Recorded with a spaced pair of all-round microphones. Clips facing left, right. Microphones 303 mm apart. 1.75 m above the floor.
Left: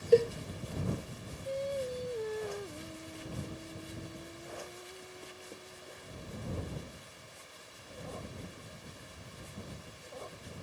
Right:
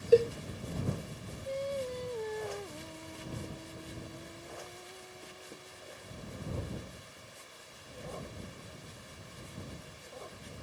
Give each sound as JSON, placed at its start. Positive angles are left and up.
{"t": 0.1, "sound": "a cowbell", "side_deg": -5}
{"t": 1.4, "sound": "singing", "side_deg": 10}